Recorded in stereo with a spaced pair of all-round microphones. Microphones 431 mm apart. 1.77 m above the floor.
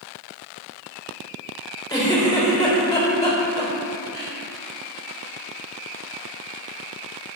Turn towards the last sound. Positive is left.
turn(degrees=10)  # may be behind; listen again after turning